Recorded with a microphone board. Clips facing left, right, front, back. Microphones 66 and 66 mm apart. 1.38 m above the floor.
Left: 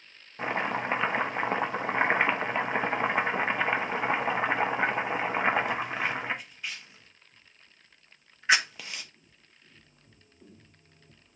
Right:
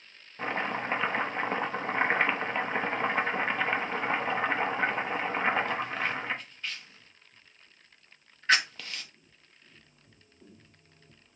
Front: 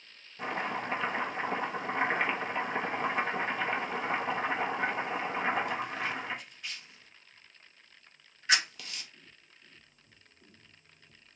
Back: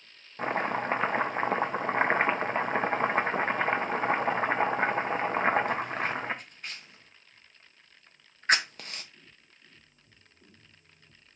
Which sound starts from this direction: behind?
Chopping, at 0.4 s.